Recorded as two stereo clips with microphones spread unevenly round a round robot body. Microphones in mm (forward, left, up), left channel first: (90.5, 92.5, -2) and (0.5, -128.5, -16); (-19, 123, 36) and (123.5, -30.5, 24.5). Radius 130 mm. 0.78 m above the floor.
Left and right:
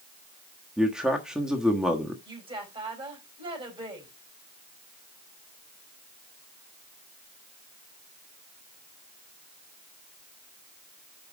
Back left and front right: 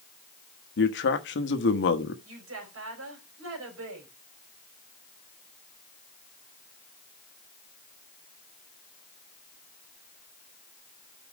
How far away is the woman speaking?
About 4.5 m.